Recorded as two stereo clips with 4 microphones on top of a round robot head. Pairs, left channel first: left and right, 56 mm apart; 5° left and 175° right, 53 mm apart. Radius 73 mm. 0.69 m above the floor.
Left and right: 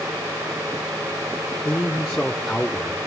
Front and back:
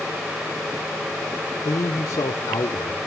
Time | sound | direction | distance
1.6 | a man speaking | 25° left | 2.0 m